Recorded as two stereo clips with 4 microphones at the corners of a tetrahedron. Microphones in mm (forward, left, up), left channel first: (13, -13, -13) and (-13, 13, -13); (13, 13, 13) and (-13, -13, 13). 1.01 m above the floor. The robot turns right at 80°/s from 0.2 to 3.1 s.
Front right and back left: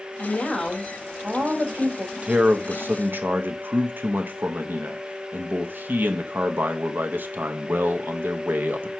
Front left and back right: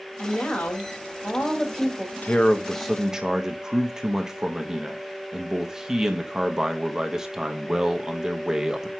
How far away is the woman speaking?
About 1.9 m.